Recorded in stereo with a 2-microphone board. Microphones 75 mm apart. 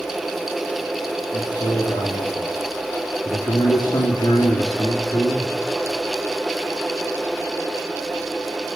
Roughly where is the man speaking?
Left.